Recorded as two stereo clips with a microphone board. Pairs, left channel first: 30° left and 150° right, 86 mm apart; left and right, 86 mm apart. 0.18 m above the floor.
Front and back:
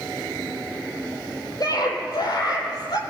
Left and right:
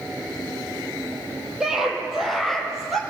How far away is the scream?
About 7.5 m.